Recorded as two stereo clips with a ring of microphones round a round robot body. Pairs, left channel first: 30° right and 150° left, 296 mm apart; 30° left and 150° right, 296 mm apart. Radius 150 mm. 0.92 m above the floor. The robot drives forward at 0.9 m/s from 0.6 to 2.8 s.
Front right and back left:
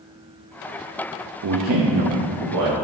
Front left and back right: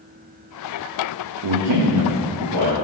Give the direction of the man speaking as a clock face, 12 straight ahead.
6 o'clock.